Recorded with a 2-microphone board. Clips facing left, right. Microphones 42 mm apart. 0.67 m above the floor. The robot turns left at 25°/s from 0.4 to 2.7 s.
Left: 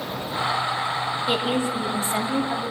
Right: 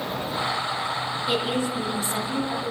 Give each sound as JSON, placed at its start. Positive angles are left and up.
{"t": 1.3, "sound": "a woman speaking", "azimuth_deg": 155, "distance_m": 1.2}